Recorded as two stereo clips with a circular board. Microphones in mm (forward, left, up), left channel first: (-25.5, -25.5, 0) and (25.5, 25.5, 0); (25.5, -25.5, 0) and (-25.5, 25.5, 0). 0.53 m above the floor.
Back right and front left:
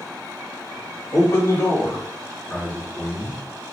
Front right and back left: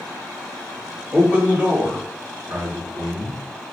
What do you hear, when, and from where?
1.1 s a man speaking: 150° right, 1.3 m; by 3.4 s 140° left, 1.6 m